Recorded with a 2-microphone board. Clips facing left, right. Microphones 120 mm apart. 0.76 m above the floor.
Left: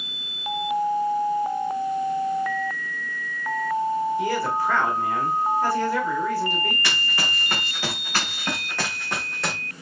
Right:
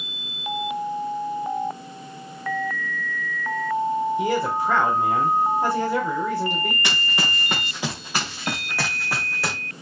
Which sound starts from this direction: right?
A man speaking, at 4.2 s.